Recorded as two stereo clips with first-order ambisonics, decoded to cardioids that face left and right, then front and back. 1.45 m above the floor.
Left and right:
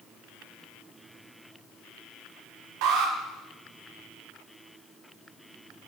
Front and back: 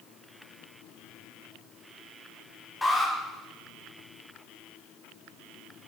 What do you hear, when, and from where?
2.8 s an alarm: 80° right, 0.9 m